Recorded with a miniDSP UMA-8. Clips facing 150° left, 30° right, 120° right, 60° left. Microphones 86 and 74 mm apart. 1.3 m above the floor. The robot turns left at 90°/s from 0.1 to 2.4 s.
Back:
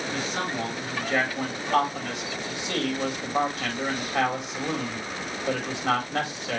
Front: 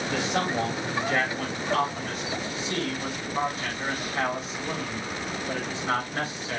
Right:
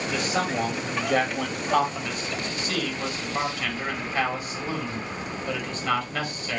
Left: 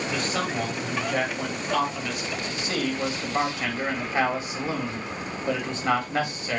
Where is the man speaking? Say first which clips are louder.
Front 5 dB, right 4 dB; 30° right, 4.5 m; by 6.6 s 125° left, 4.5 m.